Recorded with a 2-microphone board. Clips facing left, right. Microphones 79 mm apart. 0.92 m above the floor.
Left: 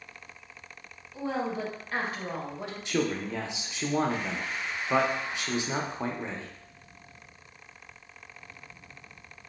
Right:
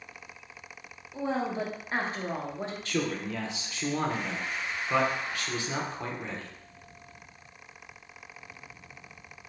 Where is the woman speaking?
30° right (ahead or behind), 0.9 m.